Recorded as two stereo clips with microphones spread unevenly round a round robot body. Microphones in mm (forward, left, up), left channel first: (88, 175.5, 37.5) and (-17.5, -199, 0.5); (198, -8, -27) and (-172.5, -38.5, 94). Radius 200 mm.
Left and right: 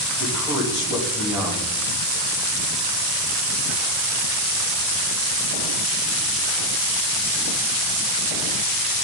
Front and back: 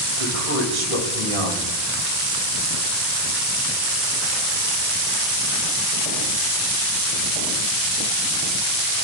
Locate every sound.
0.2 s a man speaking: 170° left, 3.5 m